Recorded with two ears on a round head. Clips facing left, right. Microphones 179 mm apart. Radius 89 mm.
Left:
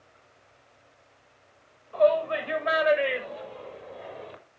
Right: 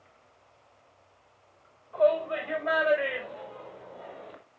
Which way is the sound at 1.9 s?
30° left (ahead or behind).